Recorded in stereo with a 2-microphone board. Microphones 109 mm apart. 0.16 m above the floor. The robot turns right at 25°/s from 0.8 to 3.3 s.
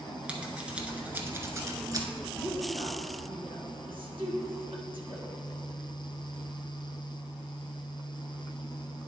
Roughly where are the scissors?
Centre.